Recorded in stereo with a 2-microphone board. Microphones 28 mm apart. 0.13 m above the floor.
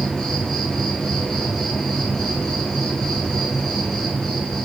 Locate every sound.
0.0 s an insect: 20° left (ahead or behind), 4.5 m